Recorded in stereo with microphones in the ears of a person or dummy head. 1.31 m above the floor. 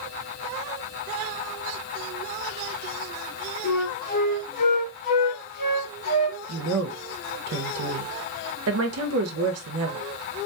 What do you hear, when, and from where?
3.6 s a flute: 50° left (ahead or behind), 1.5 m
6.5 s a woman speaking: 80° right, 0.6 m